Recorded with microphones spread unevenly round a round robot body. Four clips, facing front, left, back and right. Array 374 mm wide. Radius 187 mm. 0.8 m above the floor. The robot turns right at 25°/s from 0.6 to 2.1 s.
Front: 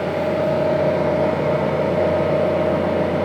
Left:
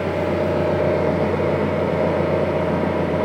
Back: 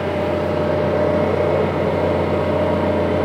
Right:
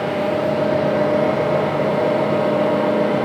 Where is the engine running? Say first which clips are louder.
Right 1 dB, even; 135° left, 0.9 m; by 3.2 s 175° left, 0.9 m.